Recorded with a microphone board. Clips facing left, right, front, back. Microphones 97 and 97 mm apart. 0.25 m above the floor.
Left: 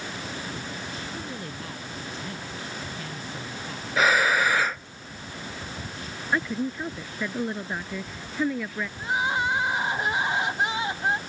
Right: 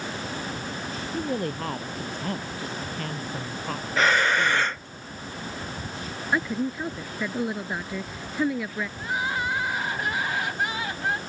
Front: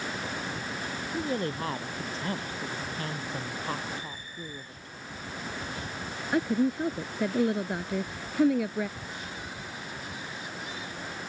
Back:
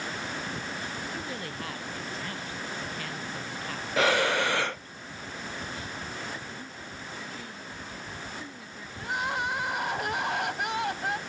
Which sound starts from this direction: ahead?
A woman speaking, at 6.3 s.